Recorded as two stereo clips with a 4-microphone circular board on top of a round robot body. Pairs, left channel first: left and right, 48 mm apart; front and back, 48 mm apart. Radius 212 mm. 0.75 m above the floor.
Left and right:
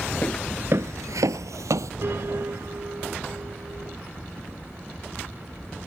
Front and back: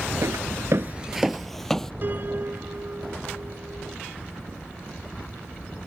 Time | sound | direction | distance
0.2 | footsteps | 155° left | ?
2.0 | a piano | 130° right | ?